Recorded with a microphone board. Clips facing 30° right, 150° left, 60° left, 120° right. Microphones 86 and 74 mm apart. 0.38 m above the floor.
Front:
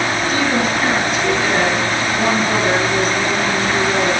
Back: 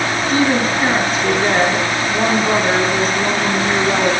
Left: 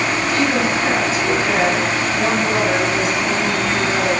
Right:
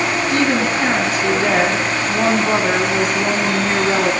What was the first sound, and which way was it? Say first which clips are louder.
A woman speaking: back 4 dB, right 1 dB; 155° right.